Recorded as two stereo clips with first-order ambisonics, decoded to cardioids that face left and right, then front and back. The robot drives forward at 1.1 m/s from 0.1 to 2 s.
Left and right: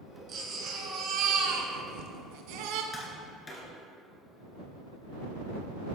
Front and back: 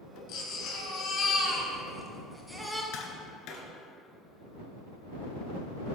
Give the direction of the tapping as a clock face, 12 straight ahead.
11 o'clock.